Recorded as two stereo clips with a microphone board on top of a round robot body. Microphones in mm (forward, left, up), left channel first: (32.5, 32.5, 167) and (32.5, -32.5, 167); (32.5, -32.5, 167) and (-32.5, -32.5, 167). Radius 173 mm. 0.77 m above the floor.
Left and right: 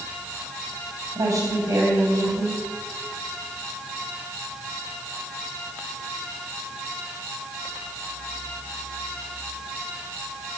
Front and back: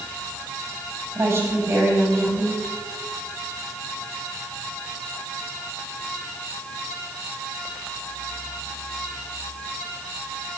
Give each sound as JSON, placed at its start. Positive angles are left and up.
{"t": 1.1, "sound": "a woman speaking", "azimuth_deg": -125, "distance_m": 4.5}